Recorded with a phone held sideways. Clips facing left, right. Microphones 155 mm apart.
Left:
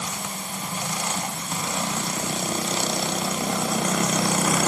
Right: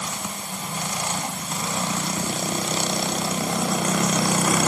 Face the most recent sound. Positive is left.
No sound to turn to.